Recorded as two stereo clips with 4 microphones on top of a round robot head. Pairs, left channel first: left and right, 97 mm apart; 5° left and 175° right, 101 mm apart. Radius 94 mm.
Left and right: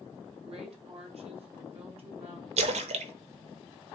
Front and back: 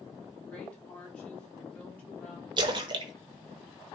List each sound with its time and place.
0.5 s a woman speaking: 75° right, 2 m
2.6 s a splash: 120° right, 0.7 m